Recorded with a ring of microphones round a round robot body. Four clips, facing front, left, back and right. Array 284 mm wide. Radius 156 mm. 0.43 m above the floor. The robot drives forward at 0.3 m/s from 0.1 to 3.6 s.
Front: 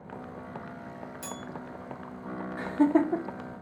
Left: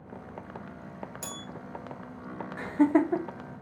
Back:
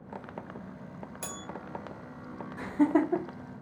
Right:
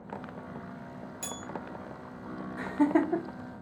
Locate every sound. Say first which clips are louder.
1.2 s a bell: right 1 dB, front 2 dB; 155° left, 0.8 m; by 1.4 s 160° left, 0.9 m
2.6 s laughter: left 2 dB, front 2 dB; 70° left, 0.9 m; by 3.2 s 105° left, 0.9 m